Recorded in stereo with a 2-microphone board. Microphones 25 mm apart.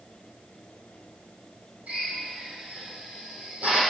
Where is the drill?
85° right, 7 m.